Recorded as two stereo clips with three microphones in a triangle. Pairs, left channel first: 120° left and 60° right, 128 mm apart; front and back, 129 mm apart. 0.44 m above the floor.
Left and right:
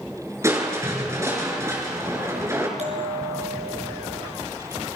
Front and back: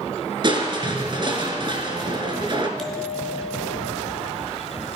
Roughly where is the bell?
Right.